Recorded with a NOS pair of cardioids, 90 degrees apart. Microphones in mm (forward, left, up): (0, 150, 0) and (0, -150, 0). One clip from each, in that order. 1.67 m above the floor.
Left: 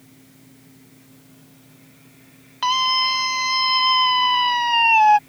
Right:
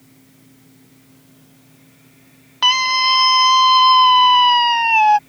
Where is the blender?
I don't hear a blender.